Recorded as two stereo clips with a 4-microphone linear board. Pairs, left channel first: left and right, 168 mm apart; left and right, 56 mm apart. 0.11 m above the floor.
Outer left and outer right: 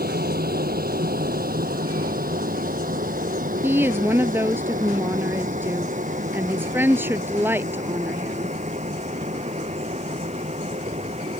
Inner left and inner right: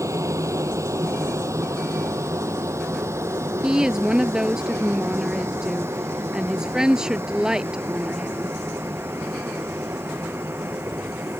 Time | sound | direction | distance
0.0 | an aircraft | 60° right (ahead or behind) | ?
3.6 | a woman speaking | 10° right (ahead or behind) | ?